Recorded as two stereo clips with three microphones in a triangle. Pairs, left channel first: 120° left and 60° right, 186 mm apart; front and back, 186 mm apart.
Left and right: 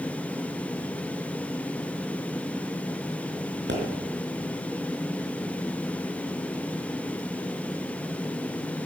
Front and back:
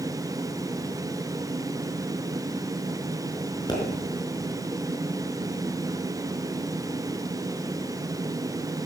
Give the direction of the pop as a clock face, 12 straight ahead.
2 o'clock.